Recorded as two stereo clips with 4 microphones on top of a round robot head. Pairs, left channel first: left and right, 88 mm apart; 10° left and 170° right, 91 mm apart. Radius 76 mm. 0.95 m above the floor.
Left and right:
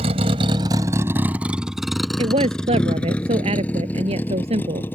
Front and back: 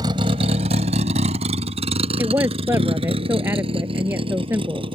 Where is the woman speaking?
100° right.